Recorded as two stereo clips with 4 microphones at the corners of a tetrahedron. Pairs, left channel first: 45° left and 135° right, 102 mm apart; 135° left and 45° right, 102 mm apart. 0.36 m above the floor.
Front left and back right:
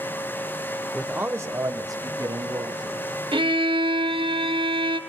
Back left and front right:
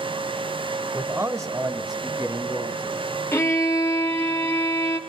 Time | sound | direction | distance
0.9 | a man speaking | 60° right | 1.0 m
3.3 | a violin | 160° right | 1.8 m